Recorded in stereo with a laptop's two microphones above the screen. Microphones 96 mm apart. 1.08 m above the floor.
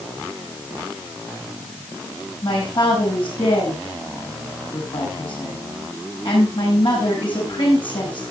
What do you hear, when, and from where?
2.4 s a man speaking: 60° left (ahead or behind), 6.5 m